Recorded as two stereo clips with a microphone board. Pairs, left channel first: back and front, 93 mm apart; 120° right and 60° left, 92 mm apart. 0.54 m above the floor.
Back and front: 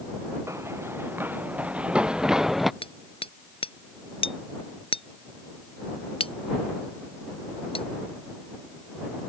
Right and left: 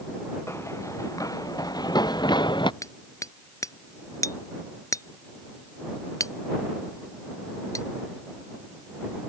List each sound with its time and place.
0.5 s running footsteps: 60° right; by 2.7 s 90° right
2.8 s hammering: 170° right